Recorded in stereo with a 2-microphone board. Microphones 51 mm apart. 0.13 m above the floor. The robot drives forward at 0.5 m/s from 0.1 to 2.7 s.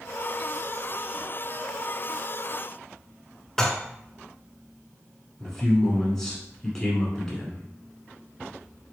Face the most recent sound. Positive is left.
turn(degrees=10)  # may be behind; listen again after turning